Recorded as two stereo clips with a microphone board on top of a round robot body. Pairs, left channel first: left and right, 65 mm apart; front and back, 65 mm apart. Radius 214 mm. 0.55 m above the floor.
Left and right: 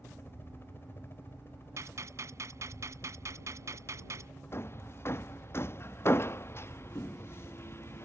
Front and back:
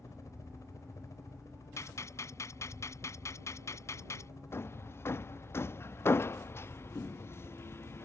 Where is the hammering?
45° left.